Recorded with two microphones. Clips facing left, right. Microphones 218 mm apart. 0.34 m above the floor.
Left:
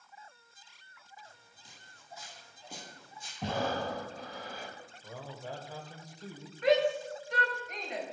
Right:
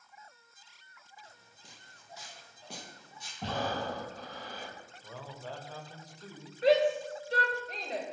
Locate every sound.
1.2 s footsteps: 75° right (ahead or behind), 6 m; by 3.3 s 70° right (ahead or behind), 7.5 m
3.4 s breathing: 10° left (ahead or behind), 2.5 m
5.0 s a man speaking: 10° left (ahead or behind), 1.5 m
6.6 s a shout: 30° right (ahead or behind), 2 m